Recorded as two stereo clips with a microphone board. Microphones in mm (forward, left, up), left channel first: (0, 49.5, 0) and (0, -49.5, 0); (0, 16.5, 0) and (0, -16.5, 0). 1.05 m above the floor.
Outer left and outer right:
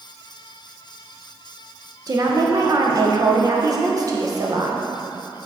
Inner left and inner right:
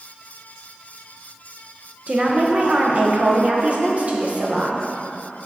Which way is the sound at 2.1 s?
35° right (ahead or behind).